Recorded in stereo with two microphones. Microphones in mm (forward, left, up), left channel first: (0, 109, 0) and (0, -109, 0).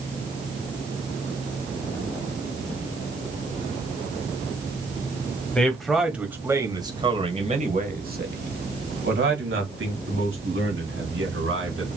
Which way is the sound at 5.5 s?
5° left (ahead or behind).